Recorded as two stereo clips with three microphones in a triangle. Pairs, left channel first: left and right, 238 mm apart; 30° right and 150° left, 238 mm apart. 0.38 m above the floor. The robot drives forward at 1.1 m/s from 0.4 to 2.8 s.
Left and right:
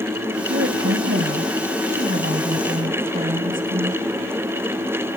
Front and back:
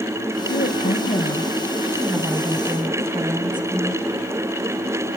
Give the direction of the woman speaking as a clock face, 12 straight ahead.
2 o'clock.